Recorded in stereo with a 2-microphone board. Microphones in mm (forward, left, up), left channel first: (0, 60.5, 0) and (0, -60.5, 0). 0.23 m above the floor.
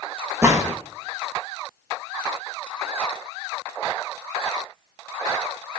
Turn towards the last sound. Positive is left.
turn(degrees=-25)  # may be behind; listen again after turning